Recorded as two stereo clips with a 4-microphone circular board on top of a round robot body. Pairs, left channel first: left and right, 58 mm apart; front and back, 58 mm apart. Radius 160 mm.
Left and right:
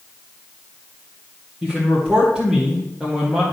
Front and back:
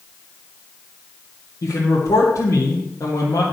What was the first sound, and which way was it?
A man speaking, 10° right.